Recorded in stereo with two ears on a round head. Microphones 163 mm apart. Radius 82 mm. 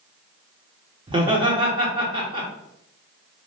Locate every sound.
1.1 s laughter: 25° right (ahead or behind), 0.9 m